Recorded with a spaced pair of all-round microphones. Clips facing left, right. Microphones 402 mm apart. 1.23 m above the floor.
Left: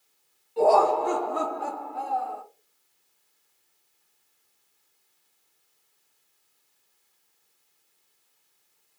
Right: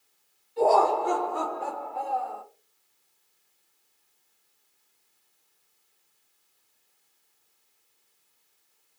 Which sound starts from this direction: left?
Laughter, at 0.6 s.